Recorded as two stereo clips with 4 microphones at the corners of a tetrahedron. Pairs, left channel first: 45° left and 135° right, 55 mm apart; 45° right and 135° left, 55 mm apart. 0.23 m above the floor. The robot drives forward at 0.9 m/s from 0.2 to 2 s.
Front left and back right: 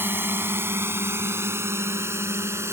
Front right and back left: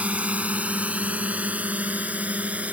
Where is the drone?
170° right; by 2.7 s 165° right.